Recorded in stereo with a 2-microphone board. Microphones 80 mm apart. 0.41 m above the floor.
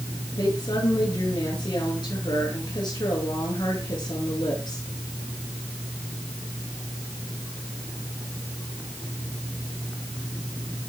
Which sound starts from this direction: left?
A woman speaking, at 0.4 s.